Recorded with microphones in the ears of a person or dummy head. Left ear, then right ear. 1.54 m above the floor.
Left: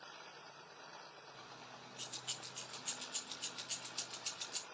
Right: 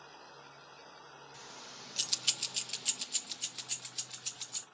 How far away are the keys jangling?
About 1.6 m.